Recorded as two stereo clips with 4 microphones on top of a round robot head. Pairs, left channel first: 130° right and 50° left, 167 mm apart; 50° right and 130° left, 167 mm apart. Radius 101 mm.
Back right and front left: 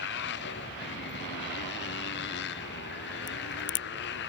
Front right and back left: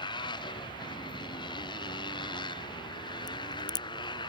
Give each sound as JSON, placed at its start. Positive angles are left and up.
{"t": 0.0, "sound": "a motorcycle", "azimuth_deg": -115}
{"t": 3.3, "sound": "a crack", "azimuth_deg": -115}